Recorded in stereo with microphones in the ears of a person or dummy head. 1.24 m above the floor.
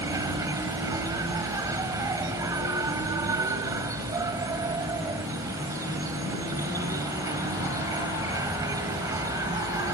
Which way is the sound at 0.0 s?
20° right (ahead or behind).